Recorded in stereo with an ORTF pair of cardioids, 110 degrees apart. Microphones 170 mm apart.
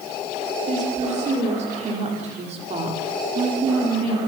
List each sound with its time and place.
0.7 s a woman speaking: 45° right, 5.5 m; by 4.2 s 35° right, 4 m